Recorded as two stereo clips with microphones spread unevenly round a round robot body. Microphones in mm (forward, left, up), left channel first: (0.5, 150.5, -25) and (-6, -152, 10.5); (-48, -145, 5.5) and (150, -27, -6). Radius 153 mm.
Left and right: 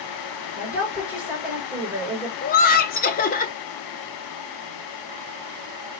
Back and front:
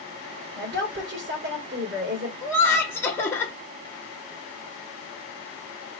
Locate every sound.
0.6 s a woman speaking: straight ahead, 2.5 m
2.4 s laughter: 130° left, 0.7 m